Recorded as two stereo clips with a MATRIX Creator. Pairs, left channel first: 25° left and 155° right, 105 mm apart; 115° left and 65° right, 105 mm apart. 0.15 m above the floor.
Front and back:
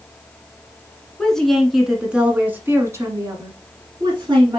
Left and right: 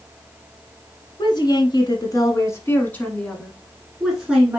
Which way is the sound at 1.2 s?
105° left.